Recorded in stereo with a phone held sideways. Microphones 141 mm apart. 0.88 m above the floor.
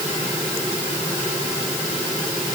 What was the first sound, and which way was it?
Only background noise.